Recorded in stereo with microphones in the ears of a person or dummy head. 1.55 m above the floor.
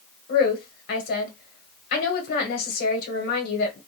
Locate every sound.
0.3 s a woman speaking: 55° left (ahead or behind), 1.3 m